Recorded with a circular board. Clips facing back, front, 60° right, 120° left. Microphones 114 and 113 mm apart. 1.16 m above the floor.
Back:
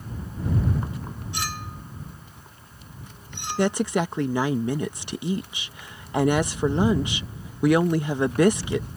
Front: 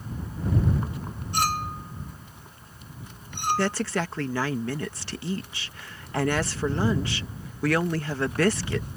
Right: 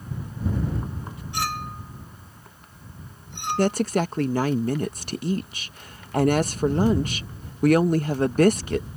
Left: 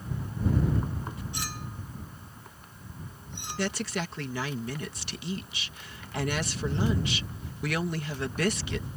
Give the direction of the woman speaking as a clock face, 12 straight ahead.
4 o'clock.